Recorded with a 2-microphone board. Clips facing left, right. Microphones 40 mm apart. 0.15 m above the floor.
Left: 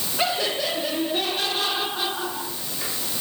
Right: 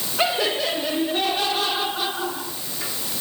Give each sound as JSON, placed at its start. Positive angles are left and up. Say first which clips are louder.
{"t": 0.2, "sound": "laughter", "louder": "right 3 dB", "side_deg": -15, "distance_m": 3.0}